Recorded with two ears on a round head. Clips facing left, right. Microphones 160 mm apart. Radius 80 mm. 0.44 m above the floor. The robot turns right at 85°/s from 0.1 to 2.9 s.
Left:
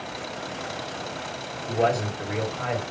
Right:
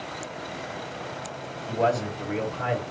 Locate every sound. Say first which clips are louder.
1.7 s a man speaking: left 1 dB; 125° left, 2 m; by 2.8 s 140° right, 2 m